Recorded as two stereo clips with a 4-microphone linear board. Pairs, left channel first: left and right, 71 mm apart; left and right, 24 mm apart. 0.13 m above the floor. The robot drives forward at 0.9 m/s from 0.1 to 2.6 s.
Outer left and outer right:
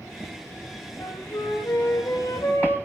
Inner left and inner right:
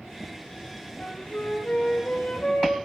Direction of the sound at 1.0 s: 70° left (ahead or behind).